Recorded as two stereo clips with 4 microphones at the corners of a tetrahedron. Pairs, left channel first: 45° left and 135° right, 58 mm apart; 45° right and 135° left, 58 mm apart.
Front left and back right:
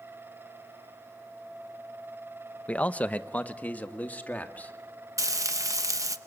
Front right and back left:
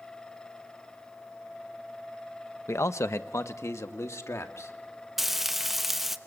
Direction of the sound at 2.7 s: 20° right.